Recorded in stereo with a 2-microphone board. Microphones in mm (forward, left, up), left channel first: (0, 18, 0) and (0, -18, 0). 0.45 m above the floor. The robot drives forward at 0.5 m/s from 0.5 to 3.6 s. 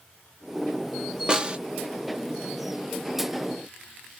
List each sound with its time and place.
1.3 s a snare drum: 25° right (ahead or behind), 0.7 m; by 1.6 s 30° right (ahead or behind), 0.6 m